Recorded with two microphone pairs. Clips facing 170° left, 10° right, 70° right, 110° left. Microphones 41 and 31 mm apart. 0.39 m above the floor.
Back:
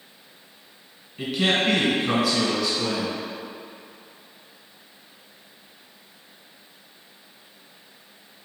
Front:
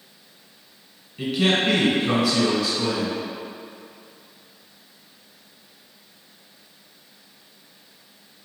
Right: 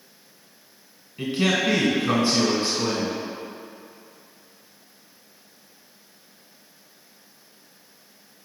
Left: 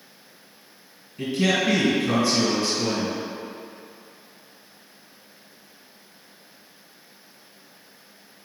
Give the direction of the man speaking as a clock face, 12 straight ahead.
3 o'clock.